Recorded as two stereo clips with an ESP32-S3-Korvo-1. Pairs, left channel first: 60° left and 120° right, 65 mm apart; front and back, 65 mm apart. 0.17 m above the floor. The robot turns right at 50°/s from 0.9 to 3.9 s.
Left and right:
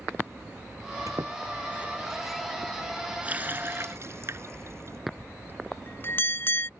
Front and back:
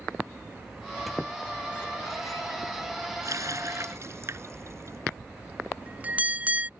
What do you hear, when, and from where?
1.1 s a squeak: 90° right; by 2.8 s 5° right
3.2 s a running tap: 175° left; by 5.0 s 155° right
5.2 s a bell: 115° left